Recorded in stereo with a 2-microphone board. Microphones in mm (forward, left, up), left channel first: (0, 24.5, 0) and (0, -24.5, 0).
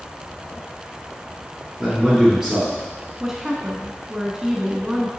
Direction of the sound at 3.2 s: 10° right (ahead or behind).